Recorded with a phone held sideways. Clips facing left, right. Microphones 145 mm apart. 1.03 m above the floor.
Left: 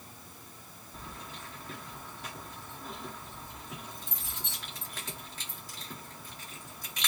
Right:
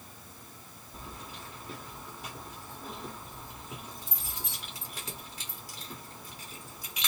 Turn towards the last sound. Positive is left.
turn(degrees=-10)  # may be behind; listen again after turning